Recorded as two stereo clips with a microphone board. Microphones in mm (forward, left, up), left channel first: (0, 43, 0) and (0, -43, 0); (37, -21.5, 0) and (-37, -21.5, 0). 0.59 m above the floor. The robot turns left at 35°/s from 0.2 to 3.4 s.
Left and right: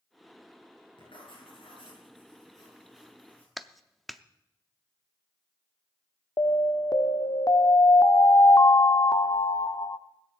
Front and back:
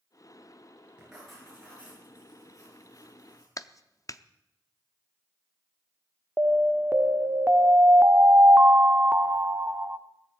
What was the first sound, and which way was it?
Writing, 100° left.